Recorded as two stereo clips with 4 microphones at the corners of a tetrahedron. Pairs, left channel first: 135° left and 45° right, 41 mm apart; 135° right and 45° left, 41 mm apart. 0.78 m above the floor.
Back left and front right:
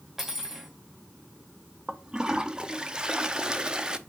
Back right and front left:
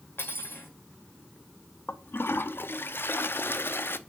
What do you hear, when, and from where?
0.2 s cutlery clinking: 125° right, 1.6 m
1.9 s a toilet flushing: 115° right, 0.6 m